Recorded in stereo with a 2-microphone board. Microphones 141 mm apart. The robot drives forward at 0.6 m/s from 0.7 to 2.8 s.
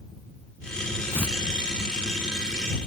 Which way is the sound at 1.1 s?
15° left (ahead or behind).